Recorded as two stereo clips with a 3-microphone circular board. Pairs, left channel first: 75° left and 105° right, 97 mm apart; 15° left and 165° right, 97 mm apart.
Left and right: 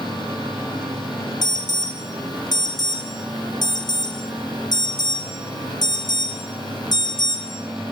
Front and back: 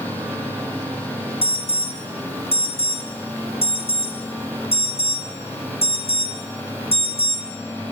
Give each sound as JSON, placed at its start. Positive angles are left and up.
{"t": 1.4, "sound": "an alarm", "azimuth_deg": 30, "distance_m": 2.5}